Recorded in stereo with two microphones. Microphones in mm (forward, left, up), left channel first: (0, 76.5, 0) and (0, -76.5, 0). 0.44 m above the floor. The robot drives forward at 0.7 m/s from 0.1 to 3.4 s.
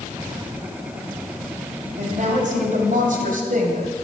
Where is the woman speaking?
55° right (ahead or behind), 2.5 m; by 3.9 s 65° right (ahead or behind), 2 m.